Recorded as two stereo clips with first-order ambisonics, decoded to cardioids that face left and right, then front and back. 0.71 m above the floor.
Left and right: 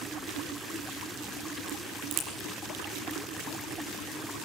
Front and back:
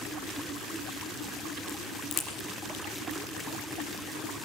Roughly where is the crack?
Ahead right.